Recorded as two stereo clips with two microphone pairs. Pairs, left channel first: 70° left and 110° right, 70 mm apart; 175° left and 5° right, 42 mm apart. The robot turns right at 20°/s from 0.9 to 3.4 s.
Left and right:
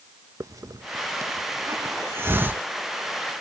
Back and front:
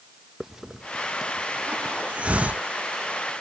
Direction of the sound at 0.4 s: 80° right.